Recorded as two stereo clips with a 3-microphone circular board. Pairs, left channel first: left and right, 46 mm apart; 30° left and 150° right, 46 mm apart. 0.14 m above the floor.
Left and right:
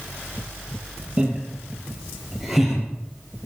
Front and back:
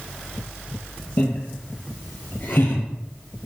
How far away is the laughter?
About 4 m.